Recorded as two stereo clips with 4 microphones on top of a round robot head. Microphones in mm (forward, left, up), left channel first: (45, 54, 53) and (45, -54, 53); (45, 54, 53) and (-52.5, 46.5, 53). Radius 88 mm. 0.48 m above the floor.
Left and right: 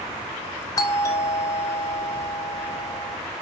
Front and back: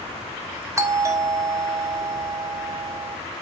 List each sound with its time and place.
0.8 s a doorbell: 140° left, 1.8 m